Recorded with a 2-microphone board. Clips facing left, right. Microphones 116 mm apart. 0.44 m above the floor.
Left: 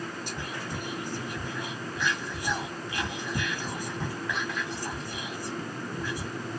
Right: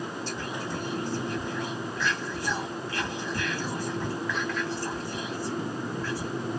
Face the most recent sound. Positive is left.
turn(degrees=15)  # may be behind; listen again after turning